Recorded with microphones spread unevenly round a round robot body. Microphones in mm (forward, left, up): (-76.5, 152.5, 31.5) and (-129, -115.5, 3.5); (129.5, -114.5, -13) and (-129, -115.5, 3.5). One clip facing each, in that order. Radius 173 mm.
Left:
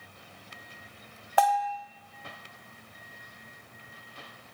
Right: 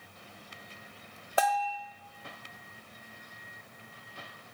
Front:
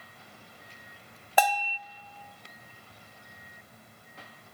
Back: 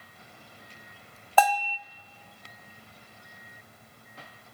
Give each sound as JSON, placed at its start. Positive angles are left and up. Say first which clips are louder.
{"t": 1.4, "sound": "a bell", "louder": "left 3 dB, back 3 dB", "azimuth_deg": -60, "distance_m": 1.1}